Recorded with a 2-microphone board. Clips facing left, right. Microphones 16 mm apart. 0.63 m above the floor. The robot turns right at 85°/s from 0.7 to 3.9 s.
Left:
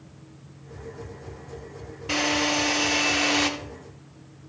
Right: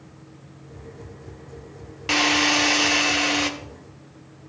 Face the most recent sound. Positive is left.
turn(degrees=65)